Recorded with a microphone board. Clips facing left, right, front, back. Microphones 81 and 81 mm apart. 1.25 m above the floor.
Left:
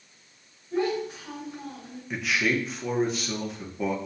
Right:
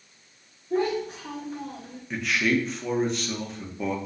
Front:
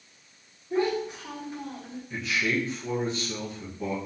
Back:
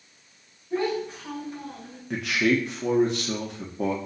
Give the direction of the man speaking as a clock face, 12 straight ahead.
6 o'clock.